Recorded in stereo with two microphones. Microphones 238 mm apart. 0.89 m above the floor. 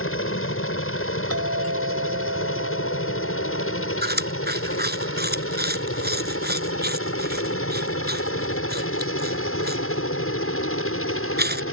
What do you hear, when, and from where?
0.0 s a helicopter: 60° left (ahead or behind); by 11.7 s 65° left (ahead or behind)
1.3 s a doorbell: 75° right (ahead or behind)
4.0 s chewing: 45° right (ahead or behind)